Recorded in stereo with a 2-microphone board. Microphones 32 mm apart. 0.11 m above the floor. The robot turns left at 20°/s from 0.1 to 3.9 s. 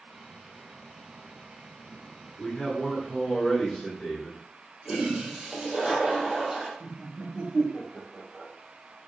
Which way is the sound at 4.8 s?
25° right (ahead or behind).